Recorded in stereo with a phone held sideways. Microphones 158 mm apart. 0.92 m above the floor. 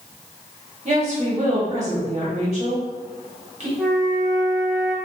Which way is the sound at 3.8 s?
10° right (ahead or behind).